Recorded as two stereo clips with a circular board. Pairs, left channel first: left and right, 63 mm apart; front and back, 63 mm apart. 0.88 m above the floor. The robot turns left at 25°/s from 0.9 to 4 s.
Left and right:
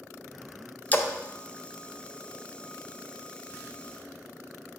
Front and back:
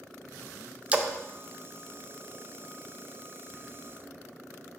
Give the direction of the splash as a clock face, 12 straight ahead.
8 o'clock.